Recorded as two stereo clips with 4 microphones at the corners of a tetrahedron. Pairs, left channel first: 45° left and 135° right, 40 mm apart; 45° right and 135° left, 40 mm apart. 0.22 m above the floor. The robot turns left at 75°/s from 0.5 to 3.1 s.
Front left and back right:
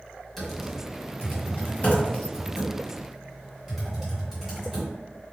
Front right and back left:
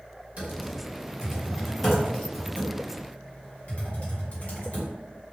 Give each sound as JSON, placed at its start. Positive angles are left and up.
{"t": 0.4, "sound": "typing on a keyboard", "azimuth_deg": 130, "distance_m": 1.5}